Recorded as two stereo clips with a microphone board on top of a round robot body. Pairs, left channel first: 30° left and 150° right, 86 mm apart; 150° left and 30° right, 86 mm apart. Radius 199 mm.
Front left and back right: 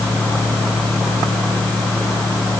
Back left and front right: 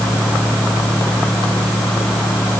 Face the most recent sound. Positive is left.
No sound to turn to.